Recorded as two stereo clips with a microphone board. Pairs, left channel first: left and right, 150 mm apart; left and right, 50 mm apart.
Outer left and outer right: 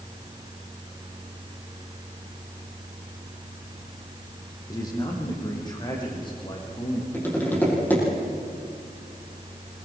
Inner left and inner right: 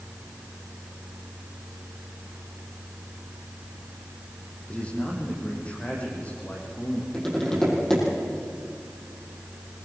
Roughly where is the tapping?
Centre.